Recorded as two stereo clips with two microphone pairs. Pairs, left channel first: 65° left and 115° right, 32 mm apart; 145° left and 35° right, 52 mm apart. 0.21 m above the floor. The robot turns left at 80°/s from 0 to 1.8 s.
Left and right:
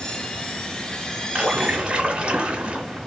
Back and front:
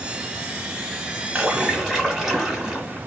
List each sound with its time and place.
1.4 s a splash: 70° right, 1.1 m; by 3.1 s 105° right, 1.1 m